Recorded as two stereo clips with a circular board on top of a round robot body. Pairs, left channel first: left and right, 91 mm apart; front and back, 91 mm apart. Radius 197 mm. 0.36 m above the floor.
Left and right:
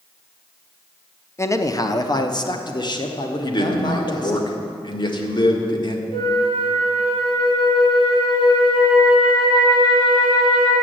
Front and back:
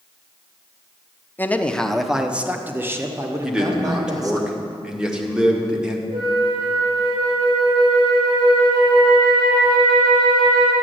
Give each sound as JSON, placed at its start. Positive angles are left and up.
{"t": 1.4, "sound": "a man speaking", "azimuth_deg": 55, "distance_m": 1.1}
{"t": 3.4, "sound": "a man speaking", "azimuth_deg": 100, "distance_m": 2.0}
{"t": 6.1, "sound": "a flute", "azimuth_deg": 135, "distance_m": 5.0}